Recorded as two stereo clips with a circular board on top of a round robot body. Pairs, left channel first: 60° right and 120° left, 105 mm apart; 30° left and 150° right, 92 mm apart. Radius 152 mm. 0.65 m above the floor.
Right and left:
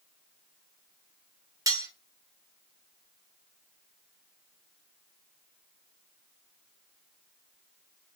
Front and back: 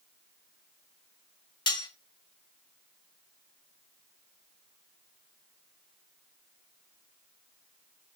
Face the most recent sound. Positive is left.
turn(degrees=65)